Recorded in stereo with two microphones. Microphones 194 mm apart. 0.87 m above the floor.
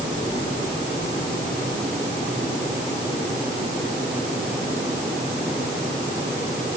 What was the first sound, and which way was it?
Only background noise.